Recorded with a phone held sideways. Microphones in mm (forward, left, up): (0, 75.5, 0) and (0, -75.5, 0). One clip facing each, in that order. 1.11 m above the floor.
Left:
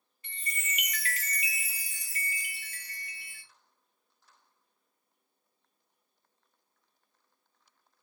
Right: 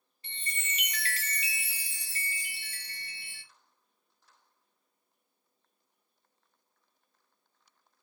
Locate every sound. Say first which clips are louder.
0.2 s a chime: left 1 dB; 30° right (ahead or behind), 0.5 m